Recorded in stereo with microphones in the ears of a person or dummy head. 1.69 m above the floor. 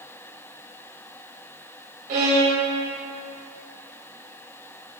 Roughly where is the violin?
Right.